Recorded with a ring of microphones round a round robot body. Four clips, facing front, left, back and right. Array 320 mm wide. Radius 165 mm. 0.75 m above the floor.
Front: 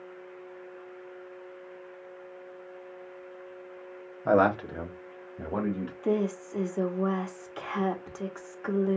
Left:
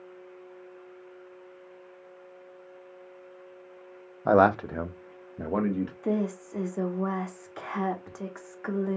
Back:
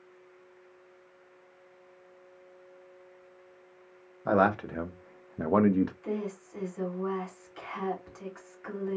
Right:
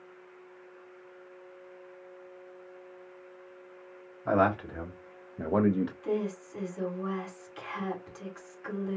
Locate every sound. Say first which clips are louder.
4.2 s a man speaking: left 6 dB, front 2 dB; 85° left, 0.7 m; by 5.9 s 150° right, 0.7 m
6.0 s a woman speaking: left 3 dB, front 7 dB; 45° left, 1.3 m